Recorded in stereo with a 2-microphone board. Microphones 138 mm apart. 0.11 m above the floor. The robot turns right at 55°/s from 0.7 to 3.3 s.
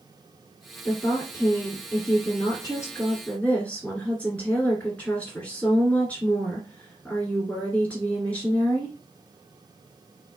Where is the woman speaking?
25° left, 1.8 m; by 8.9 s 160° left, 1.8 m.